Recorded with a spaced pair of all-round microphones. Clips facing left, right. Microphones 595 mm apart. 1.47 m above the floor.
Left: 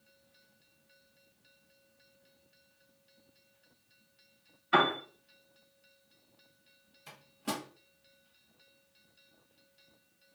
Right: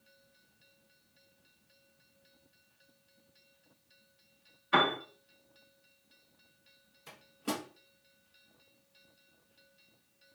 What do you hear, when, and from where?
4.7 s a piano: 5° left (ahead or behind), 1.0 m
7.1 s a microwave: 15° left (ahead or behind), 0.8 m